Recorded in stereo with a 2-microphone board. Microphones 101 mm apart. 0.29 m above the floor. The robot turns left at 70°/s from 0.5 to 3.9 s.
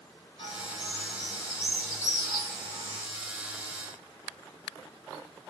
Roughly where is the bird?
Left.